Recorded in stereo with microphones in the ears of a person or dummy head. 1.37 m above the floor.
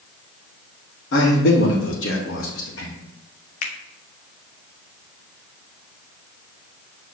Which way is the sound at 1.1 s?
65° left (ahead or behind).